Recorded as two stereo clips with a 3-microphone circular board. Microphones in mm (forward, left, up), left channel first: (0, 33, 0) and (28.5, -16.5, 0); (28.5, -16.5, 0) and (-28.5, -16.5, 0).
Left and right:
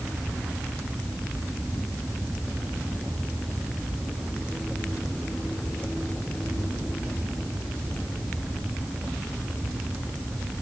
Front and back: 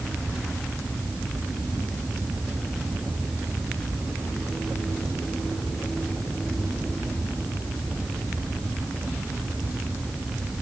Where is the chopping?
I don't hear chopping.